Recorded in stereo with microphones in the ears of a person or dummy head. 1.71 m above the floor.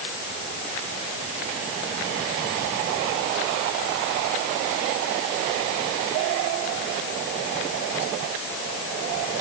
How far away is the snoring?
I don't hear snoring.